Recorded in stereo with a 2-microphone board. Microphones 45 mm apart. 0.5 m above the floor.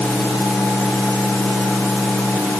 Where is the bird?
No bird in this recording.